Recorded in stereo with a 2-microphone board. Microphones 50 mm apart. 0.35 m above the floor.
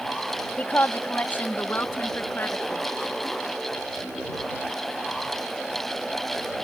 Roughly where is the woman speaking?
Left.